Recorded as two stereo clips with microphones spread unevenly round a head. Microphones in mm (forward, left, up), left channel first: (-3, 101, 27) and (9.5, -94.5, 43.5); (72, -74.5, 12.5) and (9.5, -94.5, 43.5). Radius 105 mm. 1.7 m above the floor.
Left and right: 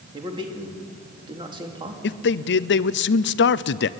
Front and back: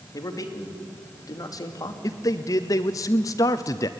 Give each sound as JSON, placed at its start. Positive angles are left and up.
{"t": 0.1, "sound": "a man speaking", "azimuth_deg": -20, "distance_m": 2.5}
{"t": 2.0, "sound": "a man speaking", "azimuth_deg": 60, "distance_m": 0.6}